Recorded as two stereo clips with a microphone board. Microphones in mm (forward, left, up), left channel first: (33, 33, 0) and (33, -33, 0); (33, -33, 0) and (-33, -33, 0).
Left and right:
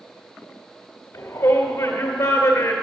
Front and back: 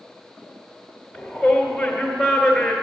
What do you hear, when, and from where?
1.1 s a shout: 75° left, 1.4 m